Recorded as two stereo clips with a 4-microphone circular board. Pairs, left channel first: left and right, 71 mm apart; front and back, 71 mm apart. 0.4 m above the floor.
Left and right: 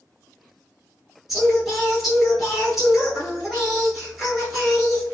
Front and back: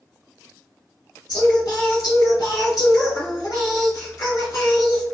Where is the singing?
5° right, 1.3 m.